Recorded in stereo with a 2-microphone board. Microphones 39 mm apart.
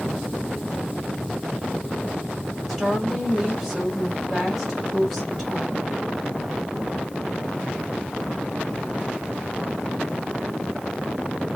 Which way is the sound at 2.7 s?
Centre (ahead or behind).